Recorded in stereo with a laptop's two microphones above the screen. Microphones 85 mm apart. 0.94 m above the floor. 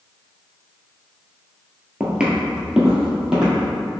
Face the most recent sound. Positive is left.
turn(degrees=-5)  # may be behind; listen again after turning